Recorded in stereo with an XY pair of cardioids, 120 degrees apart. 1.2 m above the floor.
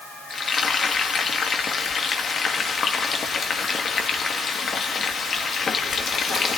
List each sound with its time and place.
0.3 s frying: 40° left, 1.7 m